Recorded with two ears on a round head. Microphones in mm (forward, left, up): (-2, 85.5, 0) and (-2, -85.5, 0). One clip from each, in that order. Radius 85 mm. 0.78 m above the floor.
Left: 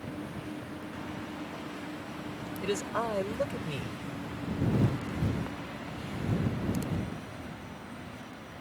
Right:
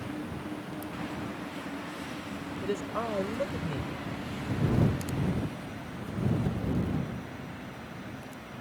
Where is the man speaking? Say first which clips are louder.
Left 1 dB; 65° left (ahead or behind).